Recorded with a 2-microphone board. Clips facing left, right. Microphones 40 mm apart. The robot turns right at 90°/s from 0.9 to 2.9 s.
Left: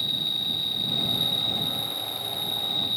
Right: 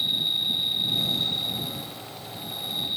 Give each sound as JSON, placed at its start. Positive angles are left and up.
{"t": 0.0, "sound": "an insect", "azimuth_deg": -20}